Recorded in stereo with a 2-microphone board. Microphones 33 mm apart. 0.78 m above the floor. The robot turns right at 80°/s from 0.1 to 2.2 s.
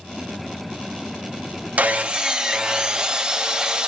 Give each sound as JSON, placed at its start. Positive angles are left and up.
{"t": 1.8, "sound": "sawing", "azimuth_deg": -60, "distance_m": 0.6}